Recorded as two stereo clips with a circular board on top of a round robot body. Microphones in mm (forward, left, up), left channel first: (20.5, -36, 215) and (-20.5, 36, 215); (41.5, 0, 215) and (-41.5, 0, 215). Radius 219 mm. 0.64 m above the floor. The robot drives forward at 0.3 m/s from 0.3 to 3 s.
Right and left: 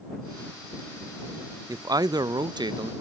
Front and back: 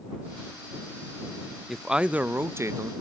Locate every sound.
1.7 s a man speaking: 90° left, 0.6 m; by 2.9 s 135° left, 0.7 m